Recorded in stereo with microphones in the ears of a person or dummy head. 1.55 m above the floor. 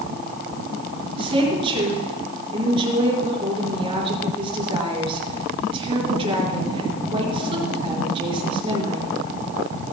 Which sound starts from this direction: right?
A woman speaking, at 1.2 s.